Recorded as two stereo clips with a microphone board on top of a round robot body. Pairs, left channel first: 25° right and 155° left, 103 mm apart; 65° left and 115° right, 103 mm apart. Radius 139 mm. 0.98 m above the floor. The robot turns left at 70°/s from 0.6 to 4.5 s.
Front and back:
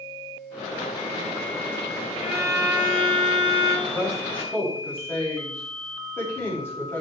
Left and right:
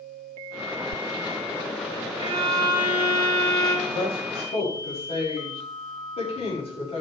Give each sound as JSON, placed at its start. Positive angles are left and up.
{"t": 2.2, "sound": "a violin", "azimuth_deg": -115, "distance_m": 8.5}
{"t": 3.9, "sound": "a woman speaking", "azimuth_deg": 95, "distance_m": 5.5}